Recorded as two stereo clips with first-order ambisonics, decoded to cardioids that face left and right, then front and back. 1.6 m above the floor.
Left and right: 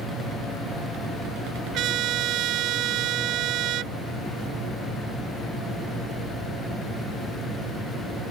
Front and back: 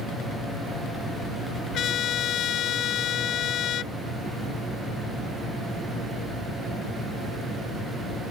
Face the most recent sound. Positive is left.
turn(degrees=-50)